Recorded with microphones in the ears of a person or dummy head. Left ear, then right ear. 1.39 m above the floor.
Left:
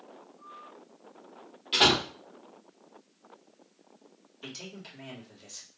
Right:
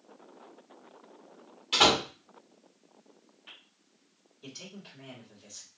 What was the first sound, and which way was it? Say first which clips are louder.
A door slam: even; 15° right (ahead or behind).